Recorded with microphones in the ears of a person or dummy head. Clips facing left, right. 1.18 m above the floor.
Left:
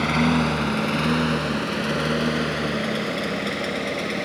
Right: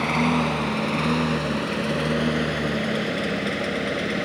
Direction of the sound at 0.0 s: 10° left (ahead or behind).